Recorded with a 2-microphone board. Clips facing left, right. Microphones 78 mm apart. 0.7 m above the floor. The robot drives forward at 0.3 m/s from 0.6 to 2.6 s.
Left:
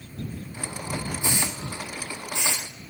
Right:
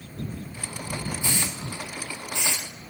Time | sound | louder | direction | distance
1.2 | a hiss | left 1 dB | 20° left (ahead or behind) | 1.4 m